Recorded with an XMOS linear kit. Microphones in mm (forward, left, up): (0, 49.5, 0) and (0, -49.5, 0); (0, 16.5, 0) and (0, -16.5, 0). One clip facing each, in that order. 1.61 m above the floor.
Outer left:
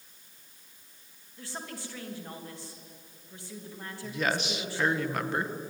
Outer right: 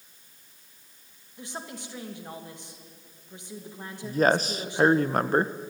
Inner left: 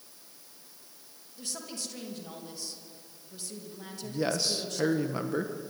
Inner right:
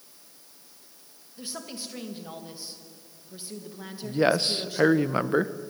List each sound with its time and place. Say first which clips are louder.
1.4 s a woman speaking: outer right 2 dB, inner right 2 dB; 20° right (ahead or behind), 2.5 m
4.0 s a man speaking: outer right 8 dB, inner right 7 dB; 40° right (ahead or behind), 0.9 m